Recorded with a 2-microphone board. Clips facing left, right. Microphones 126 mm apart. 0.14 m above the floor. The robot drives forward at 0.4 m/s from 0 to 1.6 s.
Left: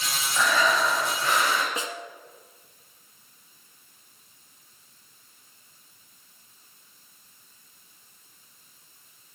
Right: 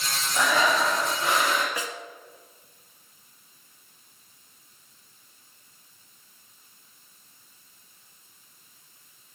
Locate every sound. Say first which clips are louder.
0.3 s breathing: right 1 dB; 20° right (ahead or behind), 3.5 m; by 1.7 s 15° right (ahead or behind), 4 m
1.8 s a snare drum: left 1 dB; 25° left (ahead or behind), 1.0 m